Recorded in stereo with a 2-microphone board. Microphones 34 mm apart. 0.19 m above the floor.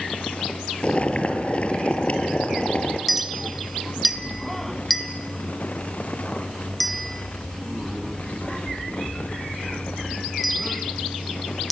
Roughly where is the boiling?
Left.